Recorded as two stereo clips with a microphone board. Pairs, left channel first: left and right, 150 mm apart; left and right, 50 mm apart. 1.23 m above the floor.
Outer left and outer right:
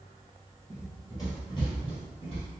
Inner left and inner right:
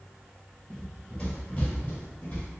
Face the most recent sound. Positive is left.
turn(degrees=40)  # may be behind; listen again after turning